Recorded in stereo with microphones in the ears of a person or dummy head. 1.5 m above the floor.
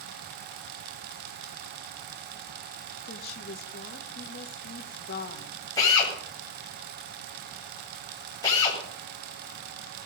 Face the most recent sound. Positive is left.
turn(degrees=25)  # may be behind; listen again after turning